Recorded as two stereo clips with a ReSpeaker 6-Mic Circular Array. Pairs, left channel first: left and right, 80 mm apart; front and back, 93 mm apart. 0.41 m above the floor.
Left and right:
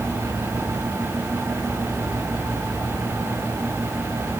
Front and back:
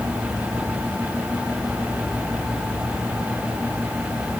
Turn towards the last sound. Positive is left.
No sound to turn to.